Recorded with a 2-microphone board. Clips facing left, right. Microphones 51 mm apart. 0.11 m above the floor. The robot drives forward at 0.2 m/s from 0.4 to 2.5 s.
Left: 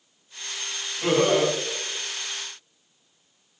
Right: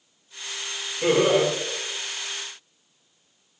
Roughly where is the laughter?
Right.